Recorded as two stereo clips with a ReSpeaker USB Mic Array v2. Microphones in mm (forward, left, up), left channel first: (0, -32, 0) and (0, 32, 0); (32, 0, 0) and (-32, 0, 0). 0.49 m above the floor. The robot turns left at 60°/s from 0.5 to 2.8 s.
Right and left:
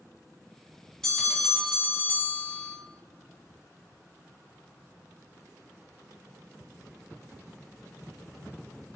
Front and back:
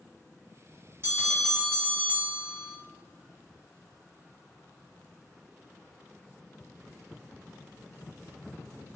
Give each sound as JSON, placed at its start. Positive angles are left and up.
{"t": 1.0, "sound": "a bell", "azimuth_deg": -170, "distance_m": 1.6}